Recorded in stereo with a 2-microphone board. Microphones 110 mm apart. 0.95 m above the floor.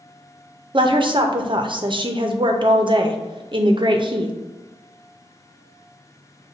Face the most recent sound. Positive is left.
turn(degrees=-50)  # may be behind; listen again after turning